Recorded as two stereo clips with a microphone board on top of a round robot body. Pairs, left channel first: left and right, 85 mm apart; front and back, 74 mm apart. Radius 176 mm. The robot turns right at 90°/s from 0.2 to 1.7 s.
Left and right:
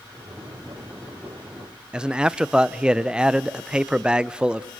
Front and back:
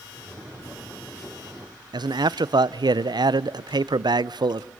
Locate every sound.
1.9 s a man speaking: 170° right, 0.6 m